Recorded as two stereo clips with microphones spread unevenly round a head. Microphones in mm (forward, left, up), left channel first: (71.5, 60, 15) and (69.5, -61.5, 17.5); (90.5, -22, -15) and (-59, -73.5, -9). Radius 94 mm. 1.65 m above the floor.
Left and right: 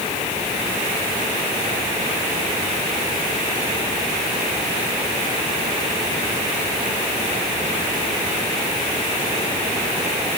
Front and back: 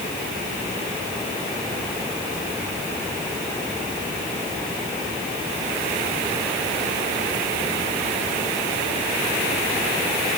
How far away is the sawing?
No sawing in this recording.